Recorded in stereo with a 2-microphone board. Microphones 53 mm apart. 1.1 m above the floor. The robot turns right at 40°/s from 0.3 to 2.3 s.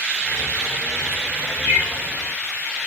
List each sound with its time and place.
1.6 s a bird: 65° right (ahead or behind), 6.5 m; by 1.9 s 55° right (ahead or behind), 6.5 m